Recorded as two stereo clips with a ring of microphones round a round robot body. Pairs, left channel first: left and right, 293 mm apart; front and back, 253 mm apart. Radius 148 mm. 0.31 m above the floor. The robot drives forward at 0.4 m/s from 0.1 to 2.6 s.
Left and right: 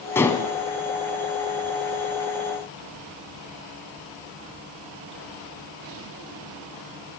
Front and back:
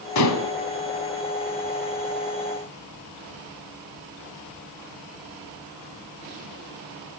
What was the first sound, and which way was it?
Dishes clattering, 10° left.